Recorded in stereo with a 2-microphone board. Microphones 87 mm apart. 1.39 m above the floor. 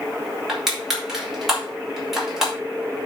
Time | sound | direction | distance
0.5 | crushing | 5° right (ahead or behind) | 5 m